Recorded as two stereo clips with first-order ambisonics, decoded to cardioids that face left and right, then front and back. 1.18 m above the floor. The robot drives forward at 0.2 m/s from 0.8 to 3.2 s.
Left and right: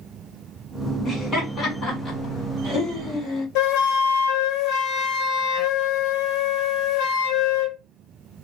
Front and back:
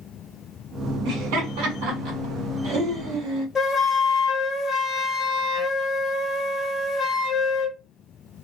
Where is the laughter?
160° left, 1.7 m; by 3.5 s 165° left, 2 m.